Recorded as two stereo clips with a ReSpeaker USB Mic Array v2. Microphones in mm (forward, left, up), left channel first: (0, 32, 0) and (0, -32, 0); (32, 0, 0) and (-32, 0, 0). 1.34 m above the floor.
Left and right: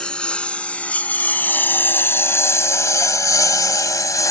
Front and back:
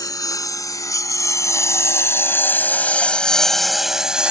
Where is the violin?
No violin in this recording.